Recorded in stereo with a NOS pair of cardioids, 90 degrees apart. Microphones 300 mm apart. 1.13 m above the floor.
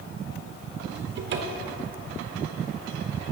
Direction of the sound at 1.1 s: 45° right.